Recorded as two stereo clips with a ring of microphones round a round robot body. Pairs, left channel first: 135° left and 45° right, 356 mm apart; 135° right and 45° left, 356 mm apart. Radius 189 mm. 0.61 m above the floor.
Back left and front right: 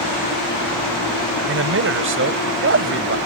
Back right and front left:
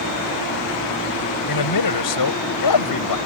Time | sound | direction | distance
1.5 | a man speaking | 100° right | ?